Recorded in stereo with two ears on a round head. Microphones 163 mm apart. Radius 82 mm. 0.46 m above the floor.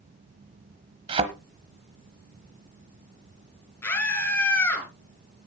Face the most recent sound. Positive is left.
turn(degrees=15)  # may be behind; listen again after turning